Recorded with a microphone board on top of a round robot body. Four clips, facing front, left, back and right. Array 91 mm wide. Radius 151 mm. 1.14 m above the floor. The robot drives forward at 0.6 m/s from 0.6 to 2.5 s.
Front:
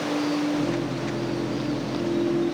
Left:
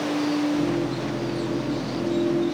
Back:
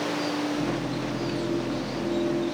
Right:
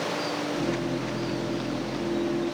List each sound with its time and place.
Only background noise.